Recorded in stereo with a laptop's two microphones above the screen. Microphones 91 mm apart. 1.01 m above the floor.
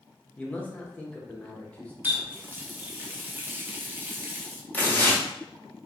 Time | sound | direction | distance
0.4 | a man speaking | 15° left (ahead or behind) | 0.6 m
2.0 | a running tap | 20° right (ahead or behind) | 0.5 m
4.7 | tearing paper | 20° left (ahead or behind) | 0.7 m